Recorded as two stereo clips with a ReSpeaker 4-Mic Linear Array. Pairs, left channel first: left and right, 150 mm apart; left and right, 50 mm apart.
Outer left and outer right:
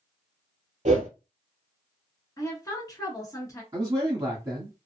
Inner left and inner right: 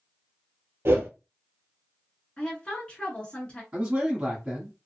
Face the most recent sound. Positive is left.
turn(degrees=-25)  # may be behind; listen again after turning